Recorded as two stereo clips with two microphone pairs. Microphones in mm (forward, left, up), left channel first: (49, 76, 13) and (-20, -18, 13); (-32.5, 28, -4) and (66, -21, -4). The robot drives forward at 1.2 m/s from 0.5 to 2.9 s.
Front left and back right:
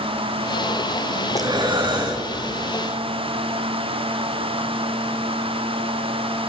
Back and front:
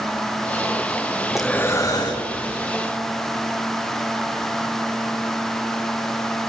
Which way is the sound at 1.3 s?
95° right.